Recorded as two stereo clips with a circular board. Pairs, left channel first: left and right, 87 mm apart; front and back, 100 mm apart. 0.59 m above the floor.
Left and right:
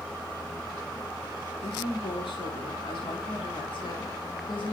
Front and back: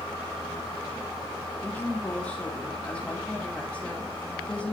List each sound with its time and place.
1.6 s a woman speaking: 80° left, 5 m